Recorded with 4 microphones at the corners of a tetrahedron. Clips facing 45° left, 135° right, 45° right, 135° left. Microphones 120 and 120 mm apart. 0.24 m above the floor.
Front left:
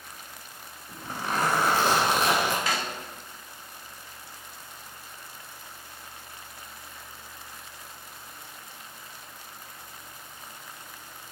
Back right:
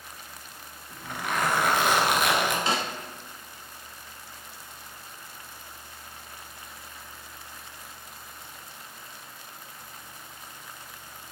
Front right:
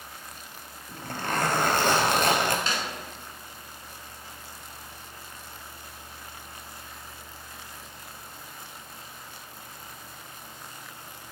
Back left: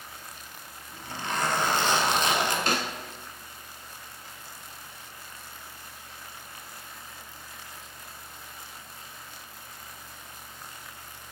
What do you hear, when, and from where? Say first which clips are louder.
0.9 s a zipper: even, front right 3 dB; 10° right, 1.3 m
2.7 s a snare drum: back right 2 dB, back left 3 dB; 160° left, 0.7 m